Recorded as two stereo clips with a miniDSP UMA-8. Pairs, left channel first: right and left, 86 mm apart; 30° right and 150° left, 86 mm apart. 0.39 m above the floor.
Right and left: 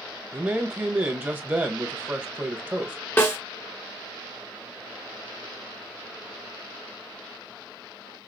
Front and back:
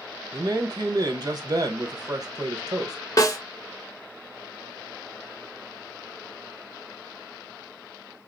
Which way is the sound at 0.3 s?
155° left.